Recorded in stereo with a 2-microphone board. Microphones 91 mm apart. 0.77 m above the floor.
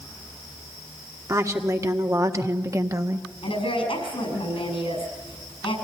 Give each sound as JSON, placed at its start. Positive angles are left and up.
{"t": 1.3, "sound": "a woman speaking", "side_deg": -35, "distance_m": 1.9}
{"t": 3.4, "sound": "a woman speaking", "side_deg": 85, "distance_m": 6.0}